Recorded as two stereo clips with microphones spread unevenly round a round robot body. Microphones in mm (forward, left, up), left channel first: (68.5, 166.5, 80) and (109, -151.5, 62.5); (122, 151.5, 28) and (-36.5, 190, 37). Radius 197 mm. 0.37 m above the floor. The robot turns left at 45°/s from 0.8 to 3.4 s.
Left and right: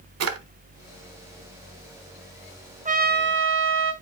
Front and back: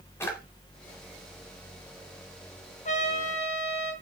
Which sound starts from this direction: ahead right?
A trumpet, at 2.9 s.